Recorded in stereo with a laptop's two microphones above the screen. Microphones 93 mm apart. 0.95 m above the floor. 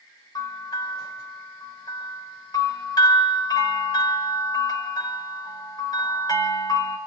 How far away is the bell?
About 5 m.